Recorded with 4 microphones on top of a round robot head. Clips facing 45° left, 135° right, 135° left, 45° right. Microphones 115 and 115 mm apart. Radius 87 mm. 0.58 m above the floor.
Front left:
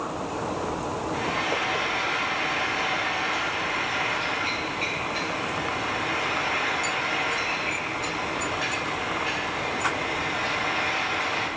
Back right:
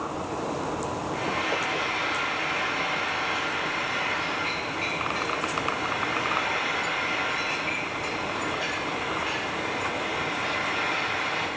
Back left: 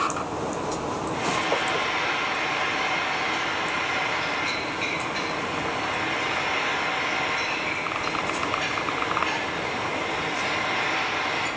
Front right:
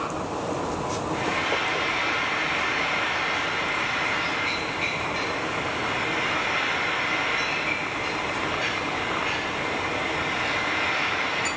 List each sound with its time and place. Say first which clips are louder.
1.1 s frying: front left 1 dB, back left 3 dB; 90° left, 4 m